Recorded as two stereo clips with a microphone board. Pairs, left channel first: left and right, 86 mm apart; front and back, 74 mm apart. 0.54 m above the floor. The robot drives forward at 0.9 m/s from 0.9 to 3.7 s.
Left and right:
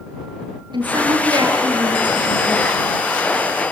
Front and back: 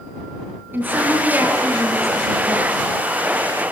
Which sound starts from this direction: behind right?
A woman speaking, at 0.7 s.